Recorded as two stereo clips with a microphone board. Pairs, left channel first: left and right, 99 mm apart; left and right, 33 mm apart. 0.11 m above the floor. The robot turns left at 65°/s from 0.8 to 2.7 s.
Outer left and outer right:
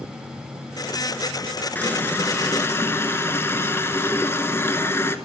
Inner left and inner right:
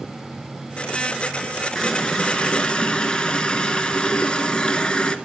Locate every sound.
1.8 s a running tap: 15° left (ahead or behind), 0.8 m; by 5.2 s 25° left (ahead or behind), 0.8 m